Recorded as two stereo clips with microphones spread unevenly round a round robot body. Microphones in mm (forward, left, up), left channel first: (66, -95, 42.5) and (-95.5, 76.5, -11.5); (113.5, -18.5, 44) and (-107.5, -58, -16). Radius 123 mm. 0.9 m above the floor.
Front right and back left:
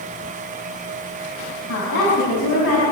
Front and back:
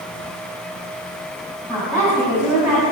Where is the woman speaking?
90° right, 6.5 m.